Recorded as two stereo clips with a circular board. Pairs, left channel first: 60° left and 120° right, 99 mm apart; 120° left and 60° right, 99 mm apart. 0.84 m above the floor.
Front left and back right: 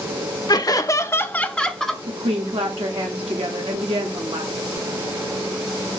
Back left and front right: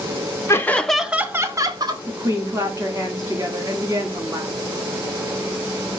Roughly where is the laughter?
Left.